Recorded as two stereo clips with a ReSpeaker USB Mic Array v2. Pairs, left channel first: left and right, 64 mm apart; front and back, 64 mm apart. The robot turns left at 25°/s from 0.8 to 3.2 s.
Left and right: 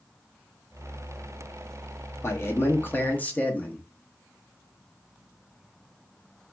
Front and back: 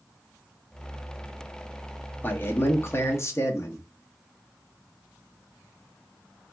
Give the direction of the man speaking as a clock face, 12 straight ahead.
10 o'clock.